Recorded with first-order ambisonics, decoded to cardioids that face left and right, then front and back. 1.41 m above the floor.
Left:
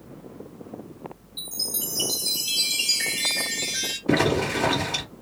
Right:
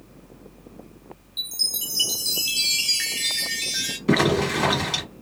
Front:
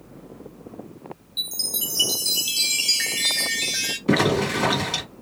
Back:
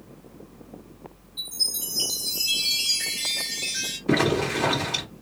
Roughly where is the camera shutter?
I don't hear a camera shutter.